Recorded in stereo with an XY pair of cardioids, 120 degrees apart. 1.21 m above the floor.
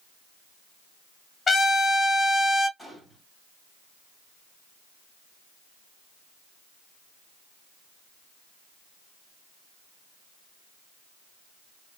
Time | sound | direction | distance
1.5 | a trumpet | 30° left | 0.9 m
2.8 | a gunshot | 5° right | 1.8 m